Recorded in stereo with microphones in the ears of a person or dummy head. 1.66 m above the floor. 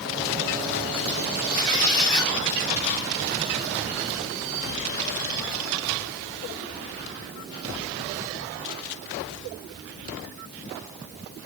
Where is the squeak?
20° left (ahead or behind), 3 m.